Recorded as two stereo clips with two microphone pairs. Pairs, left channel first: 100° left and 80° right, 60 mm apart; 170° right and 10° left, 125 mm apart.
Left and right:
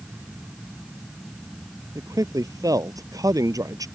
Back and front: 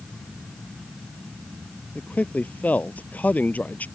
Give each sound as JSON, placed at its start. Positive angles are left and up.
{"t": 1.9, "sound": "a man speaking", "azimuth_deg": -95}